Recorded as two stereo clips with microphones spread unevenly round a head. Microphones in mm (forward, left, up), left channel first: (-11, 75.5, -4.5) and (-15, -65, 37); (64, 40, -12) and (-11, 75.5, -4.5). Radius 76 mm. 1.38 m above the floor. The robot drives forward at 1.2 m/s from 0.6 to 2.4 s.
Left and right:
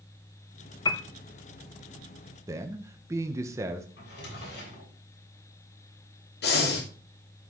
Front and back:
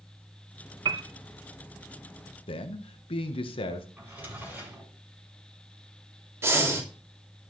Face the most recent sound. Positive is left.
turn(degrees=95)